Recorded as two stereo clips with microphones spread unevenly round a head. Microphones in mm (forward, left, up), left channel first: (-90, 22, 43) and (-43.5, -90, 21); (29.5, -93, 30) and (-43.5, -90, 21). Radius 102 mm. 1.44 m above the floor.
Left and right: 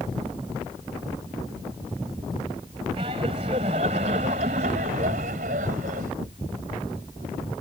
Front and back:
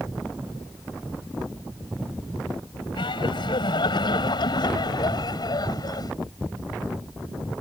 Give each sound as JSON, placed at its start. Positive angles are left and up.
{"t": 3.0, "sound": "laughter", "azimuth_deg": -5}